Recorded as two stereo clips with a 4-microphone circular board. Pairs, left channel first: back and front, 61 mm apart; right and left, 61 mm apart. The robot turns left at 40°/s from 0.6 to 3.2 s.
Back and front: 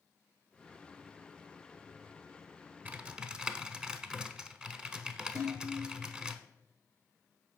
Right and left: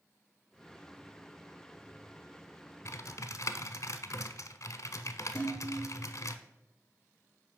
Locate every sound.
2.9 s typing on a keyboard: 60° right, 0.6 m; by 6.3 s 75° right, 0.6 m
5.3 s dishes clattering: 15° right, 3.5 m